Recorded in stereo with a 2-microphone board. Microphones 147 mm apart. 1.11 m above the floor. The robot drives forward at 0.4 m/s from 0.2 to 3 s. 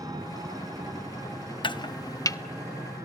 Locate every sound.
0.0 s an engine running: 25° right (ahead or behind), 3.5 m; by 3.1 s 20° right (ahead or behind), 4.5 m
1.6 s chopping: 35° left (ahead or behind), 0.5 m; by 2.4 s 25° left (ahead or behind), 0.8 m